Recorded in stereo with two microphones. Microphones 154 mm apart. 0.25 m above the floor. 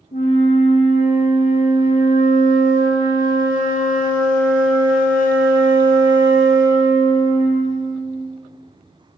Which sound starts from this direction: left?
A flute, at 0.1 s.